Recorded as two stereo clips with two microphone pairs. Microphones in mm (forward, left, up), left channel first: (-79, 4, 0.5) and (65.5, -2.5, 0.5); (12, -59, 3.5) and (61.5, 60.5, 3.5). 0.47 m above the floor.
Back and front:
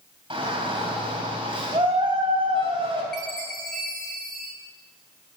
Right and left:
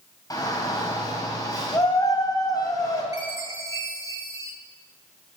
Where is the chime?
5° left, 1.7 m.